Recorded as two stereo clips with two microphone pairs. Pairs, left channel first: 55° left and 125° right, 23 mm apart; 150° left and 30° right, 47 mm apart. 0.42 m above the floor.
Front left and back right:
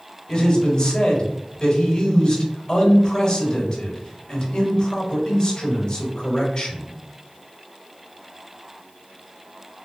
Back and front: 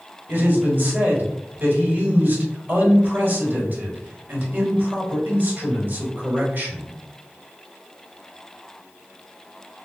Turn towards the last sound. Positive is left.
turn(degrees=15)